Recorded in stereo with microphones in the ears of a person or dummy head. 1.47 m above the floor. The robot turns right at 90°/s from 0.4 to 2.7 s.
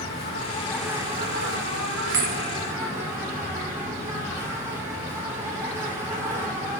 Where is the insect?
140° left, 4 m; by 6.8 s 15° right, 4 m.